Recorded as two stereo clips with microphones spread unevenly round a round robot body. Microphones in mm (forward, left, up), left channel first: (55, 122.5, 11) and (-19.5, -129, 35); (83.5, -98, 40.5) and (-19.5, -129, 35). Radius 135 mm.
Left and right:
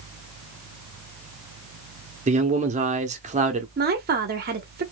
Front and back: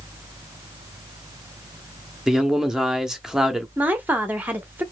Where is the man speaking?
95° right, 0.8 m.